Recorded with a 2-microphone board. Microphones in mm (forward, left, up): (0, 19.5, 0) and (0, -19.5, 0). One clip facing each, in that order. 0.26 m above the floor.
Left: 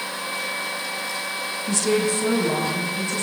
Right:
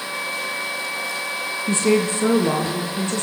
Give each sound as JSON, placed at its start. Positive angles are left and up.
{"t": 1.7, "sound": "a woman speaking", "side_deg": -35, "distance_m": 3.5}